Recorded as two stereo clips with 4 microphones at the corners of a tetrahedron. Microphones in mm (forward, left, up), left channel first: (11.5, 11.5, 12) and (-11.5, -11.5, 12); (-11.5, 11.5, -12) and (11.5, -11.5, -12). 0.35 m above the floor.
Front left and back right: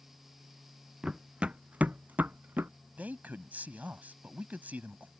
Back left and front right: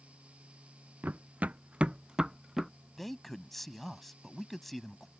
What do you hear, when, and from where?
1.0 s running footsteps: 70° right; by 2.7 s 130° right
3.0 s a man speaking: 140° right